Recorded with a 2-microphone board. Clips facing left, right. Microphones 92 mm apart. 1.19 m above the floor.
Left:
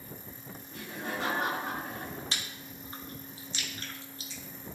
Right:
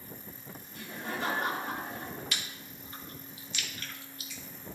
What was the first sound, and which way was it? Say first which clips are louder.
Laughter: left 1 dB; 90° left.